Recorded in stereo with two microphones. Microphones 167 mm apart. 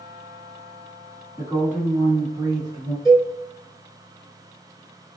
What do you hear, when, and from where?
1.4 s a woman speaking: 5° right (ahead or behind), 1.3 m; by 3.0 s 25° right (ahead or behind), 1.3 m
3.0 s a cowbell: centre (ahead or behind), 1.0 m